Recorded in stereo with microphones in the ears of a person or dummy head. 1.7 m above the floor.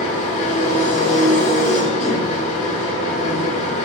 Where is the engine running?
40° left (ahead or behind), 1.9 m.